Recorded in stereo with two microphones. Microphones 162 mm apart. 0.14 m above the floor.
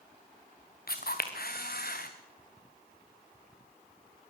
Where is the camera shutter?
70° left (ahead or behind), 2.5 m.